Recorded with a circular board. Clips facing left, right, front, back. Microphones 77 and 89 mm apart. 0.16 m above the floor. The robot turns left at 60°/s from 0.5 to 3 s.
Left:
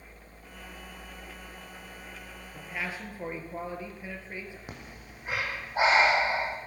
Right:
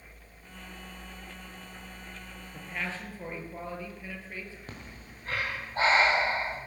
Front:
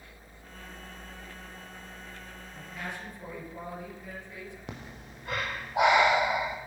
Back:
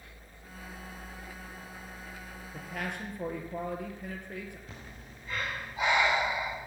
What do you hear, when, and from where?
2.5 s a man speaking: 170° right, 3.5 m; by 4.6 s 160° left, 3.5 m
4.7 s breathing: 10° left, 3 m